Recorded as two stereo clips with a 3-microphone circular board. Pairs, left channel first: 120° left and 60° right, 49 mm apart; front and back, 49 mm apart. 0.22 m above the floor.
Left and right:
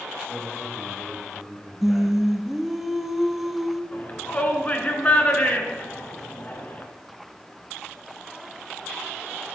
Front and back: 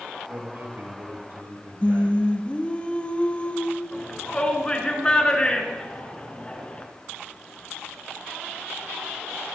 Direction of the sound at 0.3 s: 150° right.